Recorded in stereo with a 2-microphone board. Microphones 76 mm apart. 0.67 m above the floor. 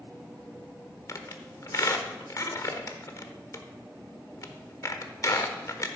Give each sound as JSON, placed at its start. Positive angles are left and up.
{"t": 1.1, "sound": "a squeak", "side_deg": 45, "distance_m": 1.2}